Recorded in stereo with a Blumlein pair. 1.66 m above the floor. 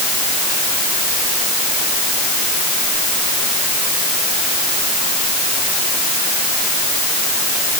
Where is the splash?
I don't hear a splash.